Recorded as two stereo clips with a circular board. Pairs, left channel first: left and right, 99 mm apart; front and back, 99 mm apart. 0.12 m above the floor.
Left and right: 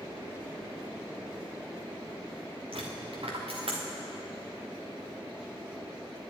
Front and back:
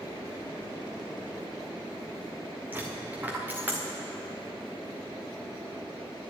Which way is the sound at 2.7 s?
110° right.